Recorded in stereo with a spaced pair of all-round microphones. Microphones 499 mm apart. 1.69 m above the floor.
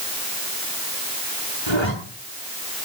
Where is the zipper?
60° left (ahead or behind), 7.5 m.